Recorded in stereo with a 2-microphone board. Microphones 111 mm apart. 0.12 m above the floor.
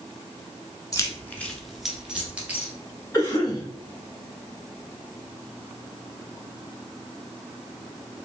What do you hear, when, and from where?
0.9 s keys jangling: 30° left (ahead or behind), 0.9 m; by 2.7 s 15° right (ahead or behind), 1.8 m
3.1 s a cough: 30° left (ahead or behind), 1.7 m